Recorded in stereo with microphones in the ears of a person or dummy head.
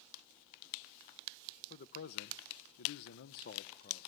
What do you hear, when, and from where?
1.7 s a man speaking: 35° left (ahead or behind), 1.0 m; by 4.1 s 45° left (ahead or behind), 1.3 m